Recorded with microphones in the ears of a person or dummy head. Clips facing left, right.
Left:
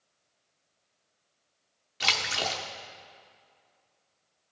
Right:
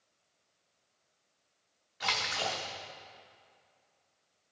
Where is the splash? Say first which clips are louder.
Left 2 dB; 35° left (ahead or behind), 0.7 m.